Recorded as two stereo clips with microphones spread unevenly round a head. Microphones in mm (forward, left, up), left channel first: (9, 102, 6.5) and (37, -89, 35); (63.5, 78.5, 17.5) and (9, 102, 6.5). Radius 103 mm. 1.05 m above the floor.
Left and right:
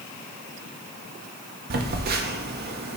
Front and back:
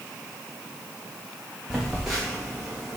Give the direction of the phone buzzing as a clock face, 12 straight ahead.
4 o'clock.